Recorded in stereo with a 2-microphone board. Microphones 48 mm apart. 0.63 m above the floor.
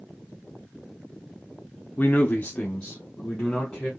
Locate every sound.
2.0 s a man speaking: 35° left (ahead or behind), 0.7 m; by 3.9 s 10° left (ahead or behind), 1.6 m